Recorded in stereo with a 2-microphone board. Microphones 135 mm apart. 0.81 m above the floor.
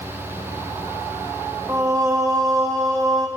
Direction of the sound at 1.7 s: 20° right (ahead or behind).